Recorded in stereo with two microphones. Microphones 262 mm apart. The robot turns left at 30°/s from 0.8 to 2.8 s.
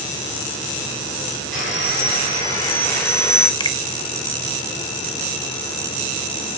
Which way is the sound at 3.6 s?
15° left (ahead or behind).